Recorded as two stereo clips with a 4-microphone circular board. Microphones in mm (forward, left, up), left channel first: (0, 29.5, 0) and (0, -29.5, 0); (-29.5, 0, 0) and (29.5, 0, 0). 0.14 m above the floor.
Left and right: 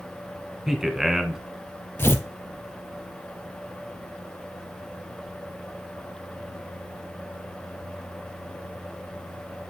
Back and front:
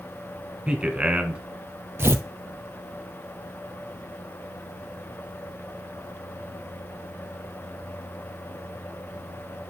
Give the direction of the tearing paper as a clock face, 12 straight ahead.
11 o'clock.